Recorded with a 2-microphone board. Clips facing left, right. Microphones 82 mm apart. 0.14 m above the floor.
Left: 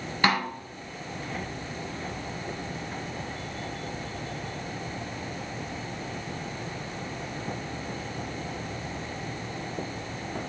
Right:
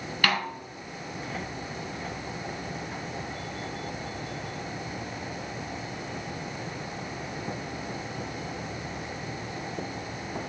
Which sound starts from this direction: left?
A snare drum, at 0.2 s.